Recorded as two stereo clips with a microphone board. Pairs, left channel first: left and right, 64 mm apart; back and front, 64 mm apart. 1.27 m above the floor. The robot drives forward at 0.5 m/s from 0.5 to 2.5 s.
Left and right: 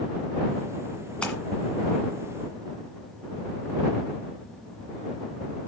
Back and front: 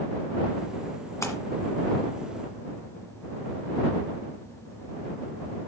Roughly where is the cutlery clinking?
No cutlery clinking in this recording.